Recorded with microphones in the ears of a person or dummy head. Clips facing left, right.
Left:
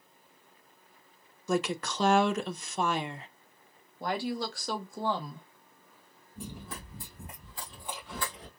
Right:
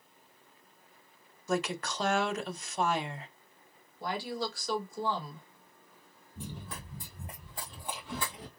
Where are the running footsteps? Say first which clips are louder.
Left 1 dB; 10° left (ahead or behind), 1.8 m; by 8.5 s 10° right (ahead or behind), 1.6 m.